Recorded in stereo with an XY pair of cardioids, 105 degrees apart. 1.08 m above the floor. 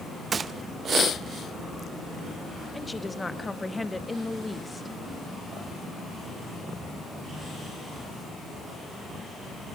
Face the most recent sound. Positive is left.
turn(degrees=15)